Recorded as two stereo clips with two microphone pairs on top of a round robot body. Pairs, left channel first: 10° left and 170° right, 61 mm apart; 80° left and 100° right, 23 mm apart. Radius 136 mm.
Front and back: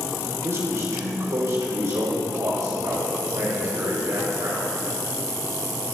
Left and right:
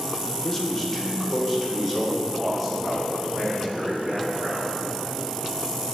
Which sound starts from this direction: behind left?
A man speaking, at 0.4 s.